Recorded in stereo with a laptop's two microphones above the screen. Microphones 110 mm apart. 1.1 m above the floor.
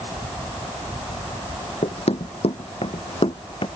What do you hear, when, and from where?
1.8 s running footsteps: 70° left (ahead or behind); by 3.7 s 55° left (ahead or behind)